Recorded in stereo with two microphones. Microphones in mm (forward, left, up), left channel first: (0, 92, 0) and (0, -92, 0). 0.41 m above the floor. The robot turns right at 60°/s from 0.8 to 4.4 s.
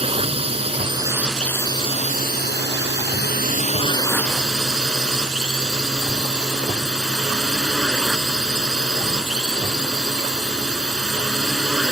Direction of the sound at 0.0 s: 35° right.